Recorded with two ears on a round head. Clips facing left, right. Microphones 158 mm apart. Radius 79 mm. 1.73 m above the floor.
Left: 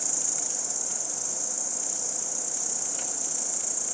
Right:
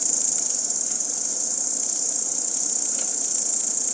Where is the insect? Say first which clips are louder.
Right 2 dB; 45° right (ahead or behind), 1.8 m.